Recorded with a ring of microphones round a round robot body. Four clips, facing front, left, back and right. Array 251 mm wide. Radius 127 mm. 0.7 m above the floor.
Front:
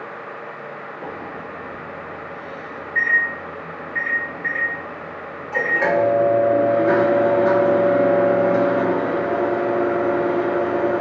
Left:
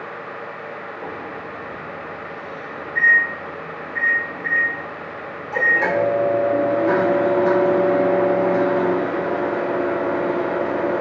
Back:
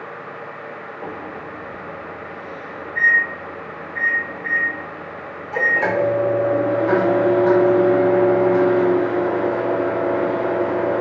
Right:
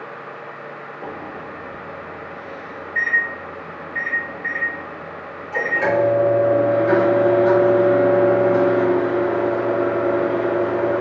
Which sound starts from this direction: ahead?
A microwave, at 1.0 s.